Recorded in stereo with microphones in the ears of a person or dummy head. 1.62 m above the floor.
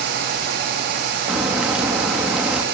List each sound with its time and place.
1.3 s a crack: 5° right (ahead or behind), 3 m